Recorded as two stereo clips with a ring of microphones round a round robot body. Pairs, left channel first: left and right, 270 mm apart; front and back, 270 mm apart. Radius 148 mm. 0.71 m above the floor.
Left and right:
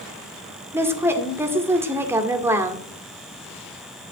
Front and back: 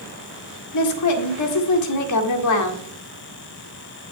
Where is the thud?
I don't hear a thud.